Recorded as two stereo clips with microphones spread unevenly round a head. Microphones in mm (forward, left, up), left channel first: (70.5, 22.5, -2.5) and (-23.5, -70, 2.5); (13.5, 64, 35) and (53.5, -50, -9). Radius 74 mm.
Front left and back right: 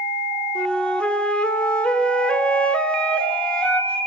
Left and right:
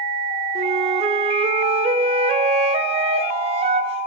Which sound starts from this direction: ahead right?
A flute, at 0.6 s.